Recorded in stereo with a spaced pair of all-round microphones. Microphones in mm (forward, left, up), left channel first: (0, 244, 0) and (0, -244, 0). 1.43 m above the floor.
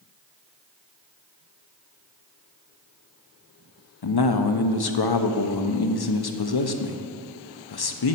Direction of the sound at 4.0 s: 50° left (ahead or behind).